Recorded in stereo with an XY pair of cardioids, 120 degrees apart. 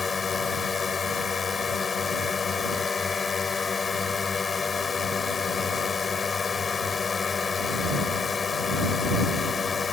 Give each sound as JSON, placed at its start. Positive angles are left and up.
{"t": 0.0, "sound": "a drone", "azimuth_deg": 30}